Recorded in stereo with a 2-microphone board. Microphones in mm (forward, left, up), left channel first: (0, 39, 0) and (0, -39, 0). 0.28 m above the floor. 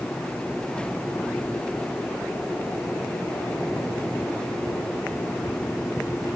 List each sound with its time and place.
Only background noise.